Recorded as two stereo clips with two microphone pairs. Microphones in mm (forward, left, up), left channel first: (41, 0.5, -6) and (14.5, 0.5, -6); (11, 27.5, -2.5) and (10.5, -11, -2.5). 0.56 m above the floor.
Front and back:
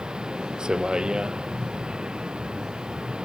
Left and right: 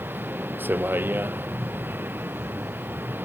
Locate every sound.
0.0 s a vehicle: 120° right